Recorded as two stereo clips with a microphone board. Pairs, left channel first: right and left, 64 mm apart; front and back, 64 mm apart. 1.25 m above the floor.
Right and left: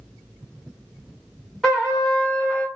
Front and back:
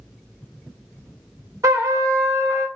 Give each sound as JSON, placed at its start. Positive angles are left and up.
{"t": 1.6, "sound": "a trumpet", "azimuth_deg": -175, "distance_m": 1.8}